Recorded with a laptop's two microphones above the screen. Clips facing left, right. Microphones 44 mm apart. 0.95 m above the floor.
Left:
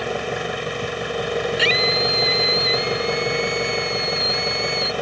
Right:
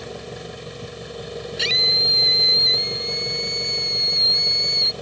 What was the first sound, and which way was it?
An engine running, 70° left (ahead or behind).